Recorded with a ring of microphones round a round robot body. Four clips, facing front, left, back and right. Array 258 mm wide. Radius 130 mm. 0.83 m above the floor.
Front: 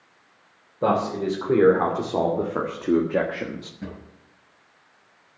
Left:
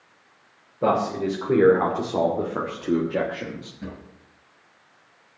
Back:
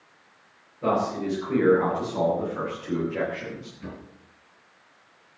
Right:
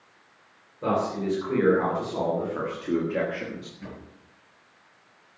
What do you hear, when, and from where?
0.8 s a man speaking: 35° left, 3.5 m; by 3.7 s straight ahead, 1.3 m
3.8 s a drawer: 25° left, 5.5 m